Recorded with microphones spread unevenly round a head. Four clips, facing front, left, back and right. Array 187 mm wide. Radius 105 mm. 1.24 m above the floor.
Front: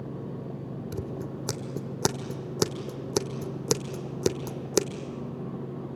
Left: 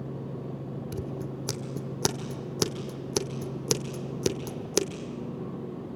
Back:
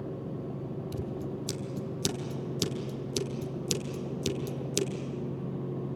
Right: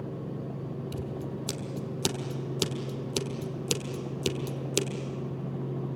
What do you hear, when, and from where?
0.9 s scissors: 20° left, 1.4 m